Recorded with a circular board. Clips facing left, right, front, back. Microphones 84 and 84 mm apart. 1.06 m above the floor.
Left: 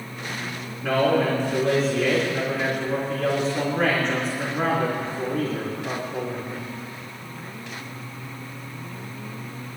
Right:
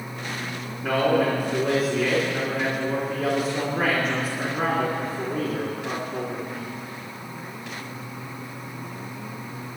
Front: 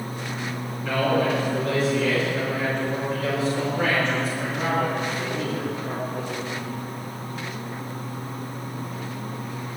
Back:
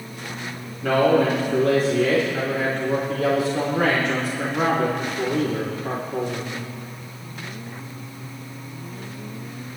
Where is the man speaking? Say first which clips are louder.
Left 1 dB, back 5 dB; 175° right, 3.5 m.